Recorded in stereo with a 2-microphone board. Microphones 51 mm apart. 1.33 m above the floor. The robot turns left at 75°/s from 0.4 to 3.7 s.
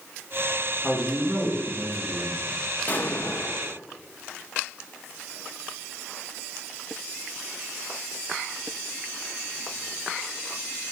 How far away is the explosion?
About 0.7 m.